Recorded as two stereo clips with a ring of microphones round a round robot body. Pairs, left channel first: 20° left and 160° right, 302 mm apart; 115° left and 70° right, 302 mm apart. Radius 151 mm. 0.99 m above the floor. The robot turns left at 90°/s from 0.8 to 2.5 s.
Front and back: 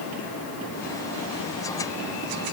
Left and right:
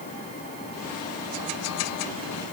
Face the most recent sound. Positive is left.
No sound to turn to.